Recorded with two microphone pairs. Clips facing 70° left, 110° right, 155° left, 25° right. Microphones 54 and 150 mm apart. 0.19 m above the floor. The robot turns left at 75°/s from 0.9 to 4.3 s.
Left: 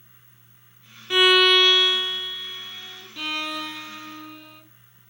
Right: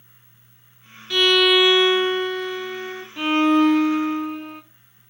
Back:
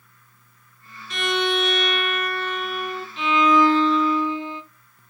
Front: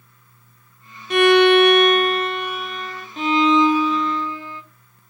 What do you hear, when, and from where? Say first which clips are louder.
1.1 s a violin: even, front 12 dB; straight ahead, 0.7 m; by 3.1 s 150° right, 0.7 m
3.2 s a violin: right 13 dB, front 2 dB; 60° right, 0.8 m; by 4.6 s 145° right, 0.8 m